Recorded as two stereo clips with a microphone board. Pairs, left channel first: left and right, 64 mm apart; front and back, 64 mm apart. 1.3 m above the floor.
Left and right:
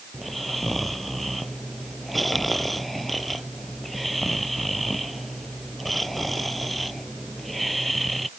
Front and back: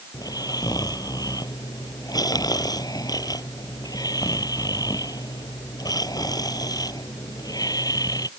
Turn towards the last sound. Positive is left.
turn(degrees=0)